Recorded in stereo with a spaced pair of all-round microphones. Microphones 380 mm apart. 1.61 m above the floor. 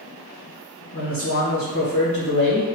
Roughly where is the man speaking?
Left.